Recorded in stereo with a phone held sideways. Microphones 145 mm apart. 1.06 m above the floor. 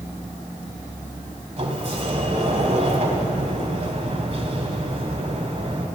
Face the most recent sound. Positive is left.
turn(degrees=-50)  # may be behind; listen again after turning